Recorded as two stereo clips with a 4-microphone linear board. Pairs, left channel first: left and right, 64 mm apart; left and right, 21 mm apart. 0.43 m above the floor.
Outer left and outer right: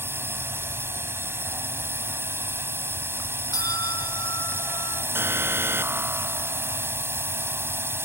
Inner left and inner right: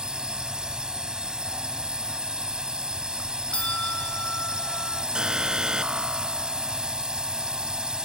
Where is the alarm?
40° right (ahead or behind).